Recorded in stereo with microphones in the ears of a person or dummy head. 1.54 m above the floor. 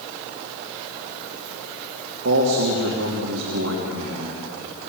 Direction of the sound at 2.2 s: 85° right.